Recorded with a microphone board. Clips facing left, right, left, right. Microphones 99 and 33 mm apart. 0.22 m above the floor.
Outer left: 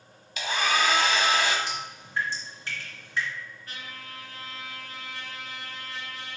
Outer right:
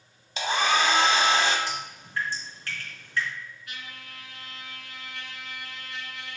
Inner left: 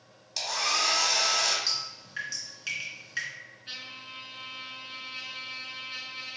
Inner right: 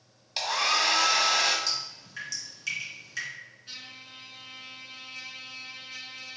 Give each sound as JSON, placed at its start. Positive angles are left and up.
{"t": 0.4, "sound": "a hair dryer", "side_deg": -30, "distance_m": 1.1}
{"t": 1.7, "sound": "dripping", "side_deg": 20, "distance_m": 3.0}
{"t": 3.7, "sound": "a trumpet", "side_deg": 40, "distance_m": 1.1}